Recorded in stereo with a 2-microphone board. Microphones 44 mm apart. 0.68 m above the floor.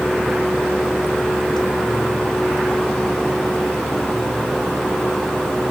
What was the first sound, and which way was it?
Only background noise.